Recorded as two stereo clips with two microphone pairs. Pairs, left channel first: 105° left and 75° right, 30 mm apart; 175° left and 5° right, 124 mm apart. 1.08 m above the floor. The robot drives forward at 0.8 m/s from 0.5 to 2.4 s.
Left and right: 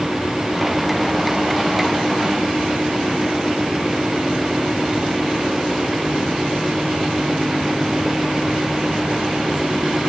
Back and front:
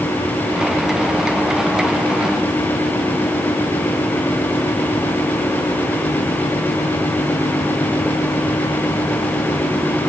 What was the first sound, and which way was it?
Only background noise.